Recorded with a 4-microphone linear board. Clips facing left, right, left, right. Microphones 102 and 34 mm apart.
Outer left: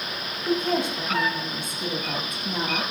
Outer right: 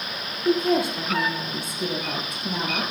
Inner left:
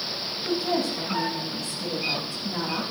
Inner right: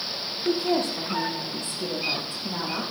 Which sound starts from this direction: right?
A woman speaking, at 0.5 s.